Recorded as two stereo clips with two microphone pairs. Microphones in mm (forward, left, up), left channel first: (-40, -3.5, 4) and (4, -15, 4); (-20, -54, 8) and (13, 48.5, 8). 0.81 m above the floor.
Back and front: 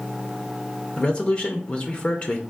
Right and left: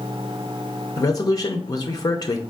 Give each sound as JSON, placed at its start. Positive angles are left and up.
{"t": 1.0, "sound": "a man speaking", "azimuth_deg": -150, "distance_m": 0.6}